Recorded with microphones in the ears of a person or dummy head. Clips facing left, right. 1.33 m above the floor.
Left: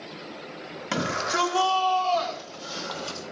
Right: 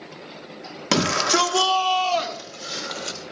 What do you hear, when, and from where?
0.9 s a shout: 80° right, 1.5 m; by 3.2 s 25° right (ahead or behind), 3 m